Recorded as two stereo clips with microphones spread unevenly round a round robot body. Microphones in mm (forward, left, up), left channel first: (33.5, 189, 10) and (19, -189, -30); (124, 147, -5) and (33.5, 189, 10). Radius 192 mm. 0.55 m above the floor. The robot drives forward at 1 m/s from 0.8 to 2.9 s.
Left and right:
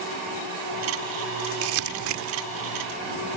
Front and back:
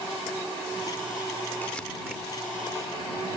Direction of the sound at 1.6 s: 95° right.